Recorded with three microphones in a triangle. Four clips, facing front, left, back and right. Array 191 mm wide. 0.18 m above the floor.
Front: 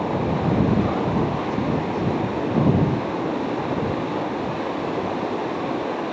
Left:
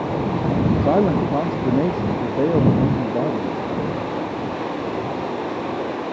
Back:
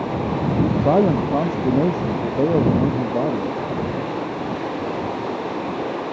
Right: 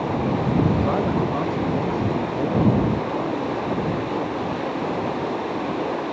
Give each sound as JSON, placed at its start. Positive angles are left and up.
{"t": 0.8, "sound": "a man speaking", "azimuth_deg": 145}